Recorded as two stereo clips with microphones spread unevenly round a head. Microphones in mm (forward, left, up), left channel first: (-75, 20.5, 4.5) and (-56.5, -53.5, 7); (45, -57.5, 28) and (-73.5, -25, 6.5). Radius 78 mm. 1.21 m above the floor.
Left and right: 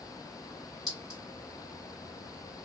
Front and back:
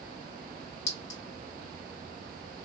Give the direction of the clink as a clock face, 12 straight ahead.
12 o'clock.